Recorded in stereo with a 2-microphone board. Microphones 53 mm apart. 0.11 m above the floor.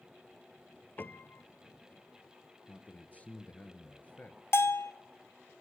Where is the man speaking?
25° left (ahead or behind), 1.6 m.